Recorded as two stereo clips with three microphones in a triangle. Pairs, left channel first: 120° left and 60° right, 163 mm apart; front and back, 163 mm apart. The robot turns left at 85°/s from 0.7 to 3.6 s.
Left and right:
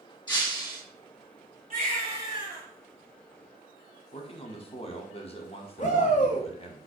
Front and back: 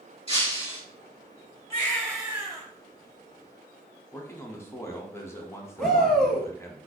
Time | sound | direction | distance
0.3 | breaking glass | 160° left | 1.7 m
1.7 | a baby crying | 55° right | 1.8 m
4.1 | a man speaking | 70° left | 0.7 m
5.8 | a shout | 90° left | 0.7 m